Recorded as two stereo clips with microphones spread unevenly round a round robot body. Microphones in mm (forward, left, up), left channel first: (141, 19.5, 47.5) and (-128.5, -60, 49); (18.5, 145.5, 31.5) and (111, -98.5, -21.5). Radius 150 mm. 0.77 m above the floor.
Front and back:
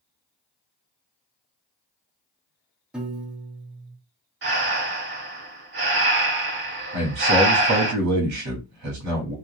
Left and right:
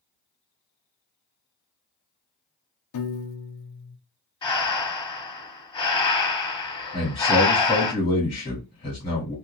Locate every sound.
2.9 s a piano: 110° left, 0.6 m
4.4 s breathing: 160° left, 0.7 m
6.9 s a man speaking: 175° right, 1.7 m